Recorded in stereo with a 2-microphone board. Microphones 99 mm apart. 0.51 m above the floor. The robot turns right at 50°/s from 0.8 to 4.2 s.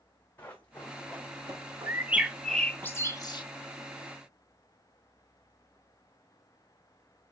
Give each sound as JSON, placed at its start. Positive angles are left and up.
{"t": 0.4, "sound": "running footsteps", "side_deg": 20, "distance_m": 2.0}
{"t": 1.9, "sound": "a bird", "side_deg": -25, "distance_m": 0.6}